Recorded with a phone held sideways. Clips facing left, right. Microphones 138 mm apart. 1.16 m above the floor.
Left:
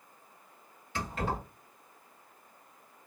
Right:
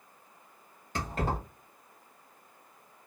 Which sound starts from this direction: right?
Keys jangling, at 0.9 s.